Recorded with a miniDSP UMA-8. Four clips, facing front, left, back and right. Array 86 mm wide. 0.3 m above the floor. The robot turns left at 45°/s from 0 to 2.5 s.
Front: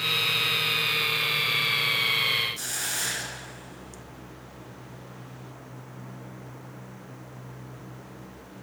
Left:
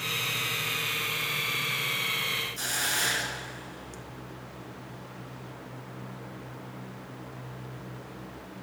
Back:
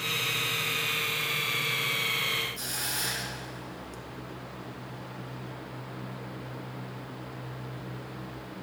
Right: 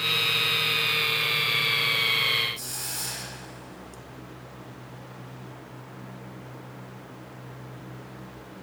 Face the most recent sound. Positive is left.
turn(degrees=75)